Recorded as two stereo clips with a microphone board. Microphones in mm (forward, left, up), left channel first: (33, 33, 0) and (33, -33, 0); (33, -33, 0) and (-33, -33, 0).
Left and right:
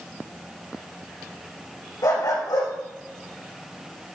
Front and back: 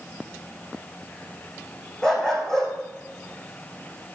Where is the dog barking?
80° left, 4.5 m.